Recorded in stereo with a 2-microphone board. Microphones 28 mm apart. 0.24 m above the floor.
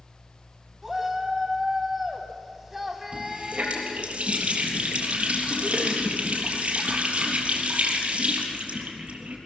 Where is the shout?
5° right (ahead or behind), 1.4 m.